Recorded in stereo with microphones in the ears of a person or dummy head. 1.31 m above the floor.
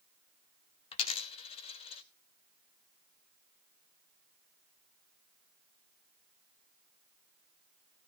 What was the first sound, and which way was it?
A dropped coin, 30° left (ahead or behind).